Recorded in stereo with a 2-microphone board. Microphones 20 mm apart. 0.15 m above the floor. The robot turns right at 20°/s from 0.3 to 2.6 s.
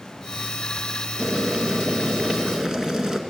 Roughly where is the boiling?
Right.